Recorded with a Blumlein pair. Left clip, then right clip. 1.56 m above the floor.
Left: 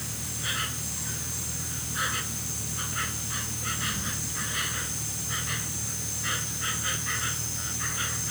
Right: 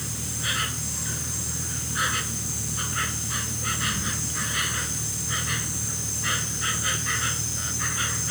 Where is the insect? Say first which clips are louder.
Right 3 dB; 10° right.